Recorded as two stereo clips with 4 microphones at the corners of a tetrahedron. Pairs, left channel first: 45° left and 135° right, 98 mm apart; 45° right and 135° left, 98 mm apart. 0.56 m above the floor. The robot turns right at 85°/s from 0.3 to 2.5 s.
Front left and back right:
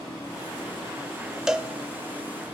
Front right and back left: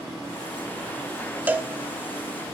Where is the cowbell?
150° left, 0.5 m; by 1.7 s 170° left, 0.5 m.